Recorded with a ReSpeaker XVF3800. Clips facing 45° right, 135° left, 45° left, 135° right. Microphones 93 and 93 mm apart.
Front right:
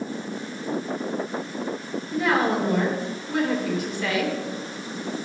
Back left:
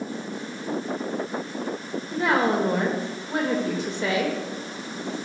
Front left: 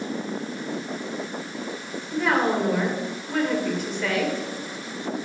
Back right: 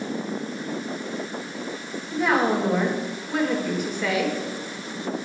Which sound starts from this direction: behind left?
A woman speaking, at 2.1 s.